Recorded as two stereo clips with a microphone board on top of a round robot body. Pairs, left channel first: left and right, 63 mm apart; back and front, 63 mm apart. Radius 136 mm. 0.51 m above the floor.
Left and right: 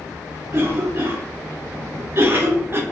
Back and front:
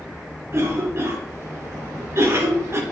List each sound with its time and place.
0.5 s a cough: 45° right, 1.6 m